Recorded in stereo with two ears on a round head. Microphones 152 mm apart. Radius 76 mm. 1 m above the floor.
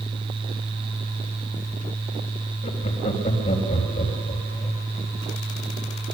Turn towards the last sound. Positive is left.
turn(degrees=40)  # may be behind; listen again after turning